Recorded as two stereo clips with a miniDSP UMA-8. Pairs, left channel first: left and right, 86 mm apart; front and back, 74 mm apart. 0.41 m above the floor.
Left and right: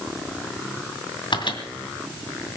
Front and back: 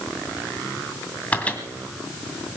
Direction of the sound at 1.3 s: 70° left.